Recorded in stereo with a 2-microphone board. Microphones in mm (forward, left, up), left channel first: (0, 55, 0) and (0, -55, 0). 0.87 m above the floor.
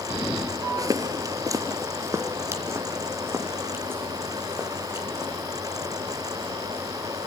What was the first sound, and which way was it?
Footsteps, 35° right (ahead or behind).